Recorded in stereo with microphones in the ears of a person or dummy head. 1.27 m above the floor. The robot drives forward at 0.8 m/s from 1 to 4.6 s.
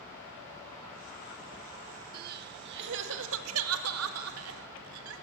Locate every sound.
2.1 s crying: 50° right (ahead or behind), 2 m; by 5.2 s 70° right (ahead or behind), 1.8 m